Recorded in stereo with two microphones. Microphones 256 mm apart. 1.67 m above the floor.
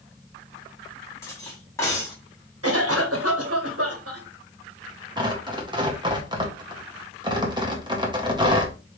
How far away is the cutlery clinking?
About 1.7 m.